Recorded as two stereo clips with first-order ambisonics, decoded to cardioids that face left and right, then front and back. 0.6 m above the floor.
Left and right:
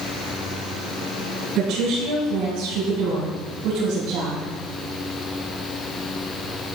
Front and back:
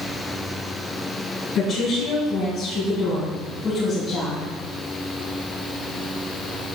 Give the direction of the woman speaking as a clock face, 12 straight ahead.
1 o'clock.